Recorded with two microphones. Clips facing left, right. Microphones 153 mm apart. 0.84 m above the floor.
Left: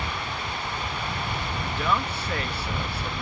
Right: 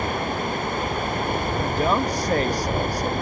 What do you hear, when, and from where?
0.0 s running water: 45° right (ahead or behind)
1.6 s a woman speaking: 40° right (ahead or behind)